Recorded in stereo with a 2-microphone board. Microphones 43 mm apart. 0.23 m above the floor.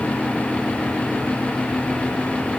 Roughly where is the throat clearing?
No throat clearing in this recording.